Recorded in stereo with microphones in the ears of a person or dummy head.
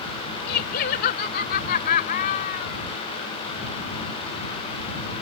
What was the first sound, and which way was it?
Laughter, 55° left (ahead or behind).